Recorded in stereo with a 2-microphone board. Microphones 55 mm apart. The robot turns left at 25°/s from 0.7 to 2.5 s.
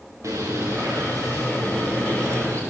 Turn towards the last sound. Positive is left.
turn(degrees=-115)